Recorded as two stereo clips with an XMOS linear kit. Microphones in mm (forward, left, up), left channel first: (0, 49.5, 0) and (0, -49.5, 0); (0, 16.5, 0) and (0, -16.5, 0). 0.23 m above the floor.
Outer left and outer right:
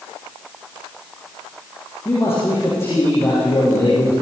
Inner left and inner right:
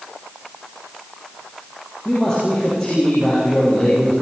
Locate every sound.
2.0 s a man speaking: 25° left (ahead or behind), 7.5 m